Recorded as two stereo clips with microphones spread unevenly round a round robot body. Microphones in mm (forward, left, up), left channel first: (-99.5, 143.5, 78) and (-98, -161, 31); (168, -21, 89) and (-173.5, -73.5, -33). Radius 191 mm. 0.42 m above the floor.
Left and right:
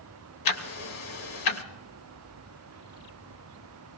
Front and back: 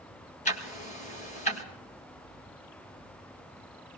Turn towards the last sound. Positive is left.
turn(degrees=85)